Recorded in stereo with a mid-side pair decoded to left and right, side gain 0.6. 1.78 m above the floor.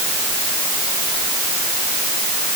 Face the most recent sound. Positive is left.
No sound to turn to.